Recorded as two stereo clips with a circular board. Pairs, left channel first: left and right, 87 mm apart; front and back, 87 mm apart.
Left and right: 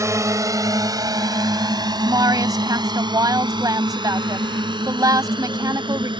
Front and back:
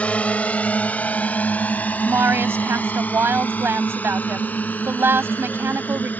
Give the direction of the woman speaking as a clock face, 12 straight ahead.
4 o'clock.